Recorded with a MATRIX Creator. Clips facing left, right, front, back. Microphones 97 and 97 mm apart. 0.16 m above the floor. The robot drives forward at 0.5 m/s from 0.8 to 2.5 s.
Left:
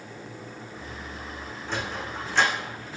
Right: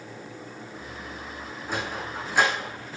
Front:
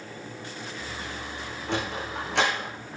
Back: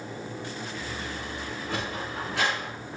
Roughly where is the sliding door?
Ahead.